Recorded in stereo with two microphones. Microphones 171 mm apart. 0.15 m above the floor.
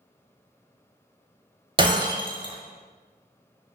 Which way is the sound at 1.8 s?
30° right (ahead or behind).